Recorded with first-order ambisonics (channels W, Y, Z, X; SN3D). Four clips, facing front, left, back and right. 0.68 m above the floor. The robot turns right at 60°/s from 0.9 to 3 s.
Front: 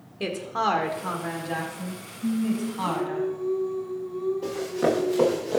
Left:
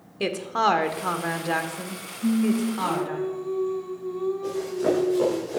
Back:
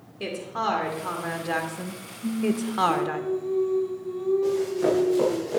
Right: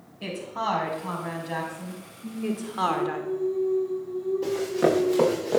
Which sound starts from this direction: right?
Running footsteps, at 4.4 s.